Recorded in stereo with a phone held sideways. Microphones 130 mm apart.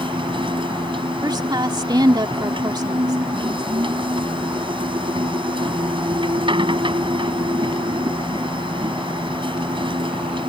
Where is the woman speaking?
35° right (ahead or behind).